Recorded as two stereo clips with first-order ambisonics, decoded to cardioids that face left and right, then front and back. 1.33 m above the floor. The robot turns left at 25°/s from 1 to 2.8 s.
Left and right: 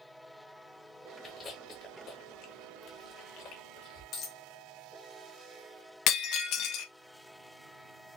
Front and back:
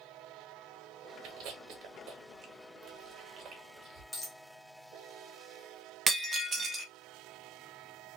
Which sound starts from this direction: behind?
Chewing, at 1.2 s.